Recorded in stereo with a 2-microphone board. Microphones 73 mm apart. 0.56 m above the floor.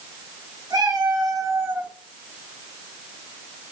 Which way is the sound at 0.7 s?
80° right.